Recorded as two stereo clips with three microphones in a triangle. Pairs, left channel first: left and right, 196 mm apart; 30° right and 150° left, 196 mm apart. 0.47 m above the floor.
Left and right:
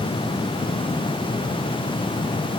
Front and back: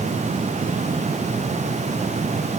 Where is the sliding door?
No sliding door in this recording.